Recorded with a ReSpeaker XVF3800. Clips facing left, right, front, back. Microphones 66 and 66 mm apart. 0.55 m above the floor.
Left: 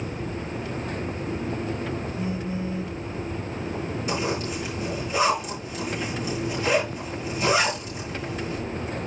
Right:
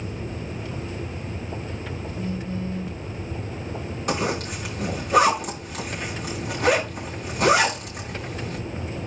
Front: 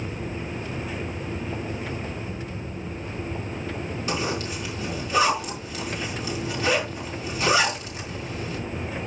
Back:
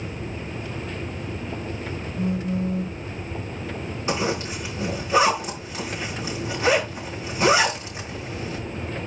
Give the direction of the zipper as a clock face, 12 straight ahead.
4 o'clock.